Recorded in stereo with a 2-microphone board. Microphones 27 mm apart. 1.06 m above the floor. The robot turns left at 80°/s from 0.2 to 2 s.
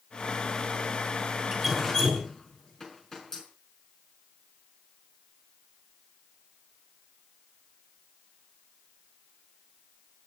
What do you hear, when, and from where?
1.5 s dripping: 20° right (ahead or behind), 4.5 m; by 3.4 s 20° left (ahead or behind), 4.5 m